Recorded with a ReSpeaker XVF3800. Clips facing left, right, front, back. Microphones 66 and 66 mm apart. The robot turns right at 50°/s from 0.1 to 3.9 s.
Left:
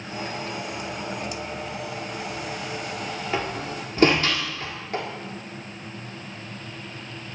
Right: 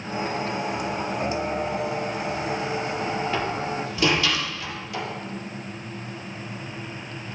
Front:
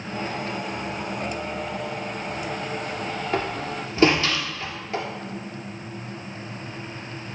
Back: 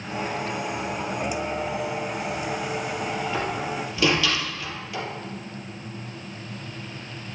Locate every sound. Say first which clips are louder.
3.3 s a door slam: right 2 dB, even; 20° left, 2 m; by 5.0 s 50° left, 2 m